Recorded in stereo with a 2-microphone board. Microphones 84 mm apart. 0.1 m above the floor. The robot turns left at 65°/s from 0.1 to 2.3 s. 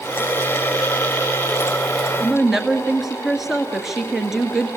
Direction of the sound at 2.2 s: 10° right (ahead or behind).